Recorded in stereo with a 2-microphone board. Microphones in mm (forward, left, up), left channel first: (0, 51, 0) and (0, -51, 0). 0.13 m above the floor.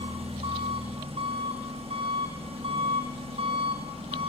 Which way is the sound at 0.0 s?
75° right (ahead or behind).